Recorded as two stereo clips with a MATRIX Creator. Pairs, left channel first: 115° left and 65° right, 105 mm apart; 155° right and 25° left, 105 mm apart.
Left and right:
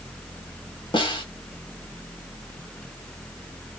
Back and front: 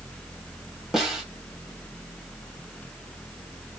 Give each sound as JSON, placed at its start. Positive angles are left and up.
{"t": 0.9, "sound": "a snare drum", "azimuth_deg": 110, "distance_m": 2.0}